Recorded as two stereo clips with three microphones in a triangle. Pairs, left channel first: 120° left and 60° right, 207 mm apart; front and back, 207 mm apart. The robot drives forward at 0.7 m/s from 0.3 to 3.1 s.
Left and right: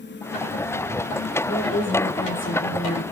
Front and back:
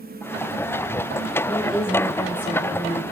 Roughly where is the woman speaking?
Left.